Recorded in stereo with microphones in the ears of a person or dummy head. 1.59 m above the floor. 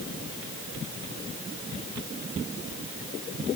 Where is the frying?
I don't hear frying.